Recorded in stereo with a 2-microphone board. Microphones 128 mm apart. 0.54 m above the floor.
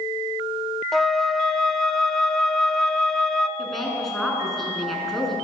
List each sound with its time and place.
0.9 s a flute: centre (ahead or behind), 0.8 m
3.6 s a woman speaking: centre (ahead or behind), 6.5 m